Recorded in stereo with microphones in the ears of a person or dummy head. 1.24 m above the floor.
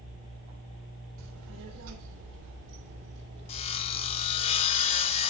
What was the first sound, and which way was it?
A child speaking, 70° right (ahead or behind).